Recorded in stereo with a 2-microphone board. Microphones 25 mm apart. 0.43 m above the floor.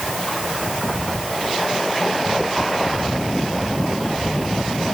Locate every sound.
Only background noise.